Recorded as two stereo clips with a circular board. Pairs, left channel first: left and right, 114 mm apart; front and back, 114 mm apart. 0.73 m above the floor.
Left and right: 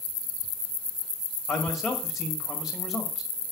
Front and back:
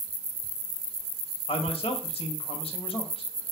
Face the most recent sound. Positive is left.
turn(degrees=0)